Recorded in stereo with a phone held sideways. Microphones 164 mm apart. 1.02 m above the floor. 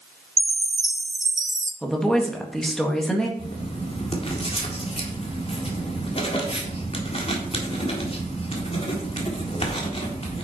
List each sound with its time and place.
0.4 s a chime: 50° right (ahead or behind), 1.0 m
1.8 s a woman speaking: 5° left (ahead or behind), 1.7 m
3.4 s writing: 35° left (ahead or behind), 2 m